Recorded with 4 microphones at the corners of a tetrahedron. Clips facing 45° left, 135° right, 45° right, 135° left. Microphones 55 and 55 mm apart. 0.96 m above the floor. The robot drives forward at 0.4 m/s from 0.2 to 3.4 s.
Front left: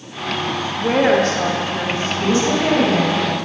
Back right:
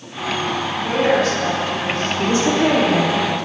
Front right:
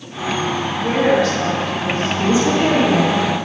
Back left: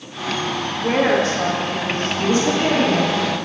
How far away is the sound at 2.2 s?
About 1.6 m.